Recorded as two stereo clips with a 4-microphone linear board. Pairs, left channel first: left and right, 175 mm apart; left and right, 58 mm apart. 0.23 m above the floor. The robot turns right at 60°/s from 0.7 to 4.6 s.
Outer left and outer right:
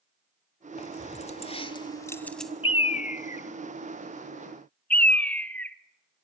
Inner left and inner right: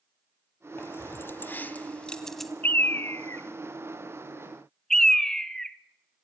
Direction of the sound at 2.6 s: 30° left (ahead or behind).